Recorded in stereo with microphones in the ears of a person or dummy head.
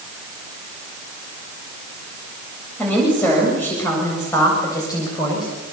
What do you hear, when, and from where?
2.8 s a woman speaking: 5° left (ahead or behind), 8 m; by 5.5 s 20° left (ahead or behind), 8 m